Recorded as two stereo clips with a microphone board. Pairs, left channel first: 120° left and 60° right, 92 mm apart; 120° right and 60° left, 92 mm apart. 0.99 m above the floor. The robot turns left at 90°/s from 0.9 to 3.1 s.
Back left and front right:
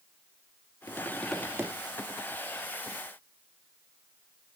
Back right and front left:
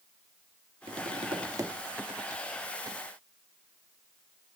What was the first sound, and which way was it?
Tapping, 70° left.